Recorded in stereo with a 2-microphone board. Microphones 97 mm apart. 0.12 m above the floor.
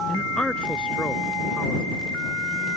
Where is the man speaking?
10° left (ahead or behind).